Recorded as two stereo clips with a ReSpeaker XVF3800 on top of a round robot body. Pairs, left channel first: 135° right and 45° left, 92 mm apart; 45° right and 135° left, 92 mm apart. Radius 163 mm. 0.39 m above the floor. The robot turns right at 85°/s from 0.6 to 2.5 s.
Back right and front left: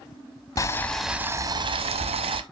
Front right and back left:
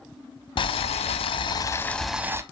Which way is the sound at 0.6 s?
80° right.